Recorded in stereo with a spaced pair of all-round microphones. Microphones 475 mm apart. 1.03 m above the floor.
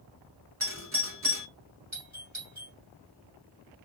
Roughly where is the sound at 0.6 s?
Right.